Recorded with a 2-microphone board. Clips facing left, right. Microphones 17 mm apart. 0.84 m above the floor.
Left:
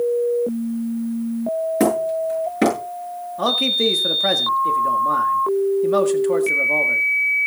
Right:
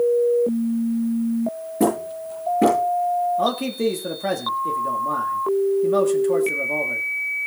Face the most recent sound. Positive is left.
turn(degrees=30)  # may be behind; listen again after turning